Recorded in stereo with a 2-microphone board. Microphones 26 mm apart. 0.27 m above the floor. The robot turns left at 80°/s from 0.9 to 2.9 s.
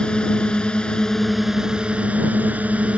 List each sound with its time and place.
0.0 s a drone: 40° left; by 3.0 s 120° right